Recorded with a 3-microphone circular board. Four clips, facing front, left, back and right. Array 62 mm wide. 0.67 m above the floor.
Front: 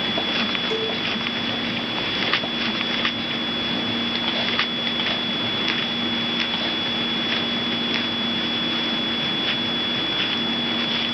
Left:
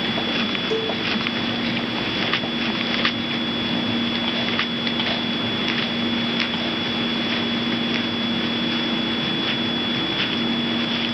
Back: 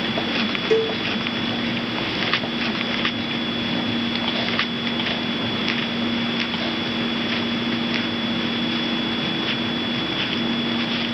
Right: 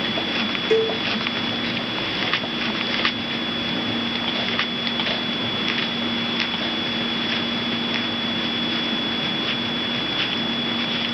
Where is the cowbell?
140° right, 1.7 m.